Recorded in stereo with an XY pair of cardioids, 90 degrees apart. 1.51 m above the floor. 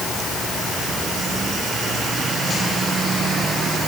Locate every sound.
Only background noise.